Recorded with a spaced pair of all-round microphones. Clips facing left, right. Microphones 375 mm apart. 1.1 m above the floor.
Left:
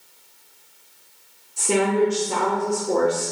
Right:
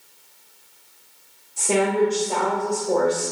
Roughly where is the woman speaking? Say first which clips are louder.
Even; left.